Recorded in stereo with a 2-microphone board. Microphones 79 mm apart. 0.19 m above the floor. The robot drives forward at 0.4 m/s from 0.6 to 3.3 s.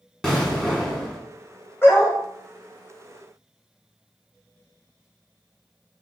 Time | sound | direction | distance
0.2 | an explosion | 5° left (ahead or behind) | 1.7 m
1.8 | a dog barking | 25° left (ahead or behind) | 2 m